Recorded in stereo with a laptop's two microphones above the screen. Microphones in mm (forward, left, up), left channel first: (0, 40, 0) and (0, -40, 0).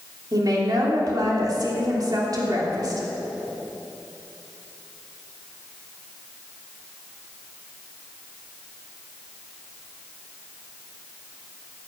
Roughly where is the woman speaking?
Right.